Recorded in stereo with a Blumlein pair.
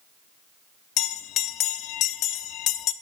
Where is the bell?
35° left, 0.7 m.